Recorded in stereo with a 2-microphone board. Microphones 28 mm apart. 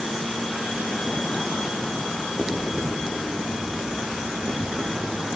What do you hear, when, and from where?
2.4 s writing: 80° right, 8.5 m